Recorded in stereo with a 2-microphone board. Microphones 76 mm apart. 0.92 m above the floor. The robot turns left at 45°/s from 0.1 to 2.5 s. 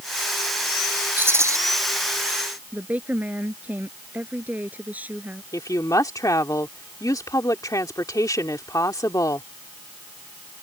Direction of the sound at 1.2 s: 25° right (ahead or behind).